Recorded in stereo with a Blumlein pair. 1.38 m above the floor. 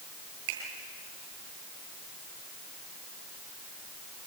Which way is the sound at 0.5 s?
50° right.